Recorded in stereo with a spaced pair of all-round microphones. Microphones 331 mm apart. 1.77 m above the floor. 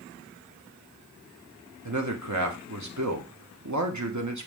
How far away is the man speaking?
About 1.2 m.